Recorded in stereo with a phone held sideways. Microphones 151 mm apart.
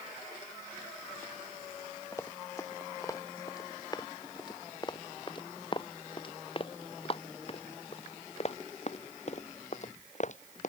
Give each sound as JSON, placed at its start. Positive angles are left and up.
{"t": 2.1, "sound": "running footsteps", "side_deg": 20}